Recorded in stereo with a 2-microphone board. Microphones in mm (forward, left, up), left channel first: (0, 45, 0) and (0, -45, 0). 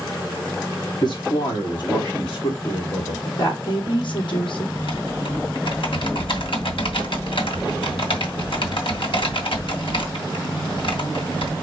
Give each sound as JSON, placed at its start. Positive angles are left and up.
{"t": 1.0, "sound": "a man speaking", "side_deg": 55, "distance_m": 1.8}
{"t": 3.4, "sound": "a woman speaking", "side_deg": 65, "distance_m": 2.5}
{"t": 4.8, "sound": "typing on a keyboard", "side_deg": 75, "distance_m": 2.5}